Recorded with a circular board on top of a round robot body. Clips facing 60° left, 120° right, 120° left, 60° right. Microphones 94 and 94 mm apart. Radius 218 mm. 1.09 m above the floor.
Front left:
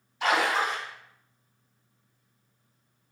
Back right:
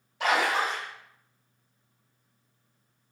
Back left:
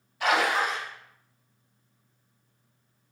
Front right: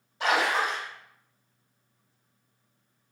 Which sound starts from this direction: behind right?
A splash, at 0.2 s.